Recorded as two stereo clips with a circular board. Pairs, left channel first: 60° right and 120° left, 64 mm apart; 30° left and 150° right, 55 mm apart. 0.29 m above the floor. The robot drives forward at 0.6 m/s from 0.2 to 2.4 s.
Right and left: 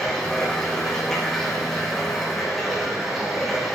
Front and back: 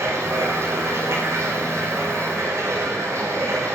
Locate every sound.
0.0 s running water: 140° right, 7 m; by 3.8 s 145° right, 8 m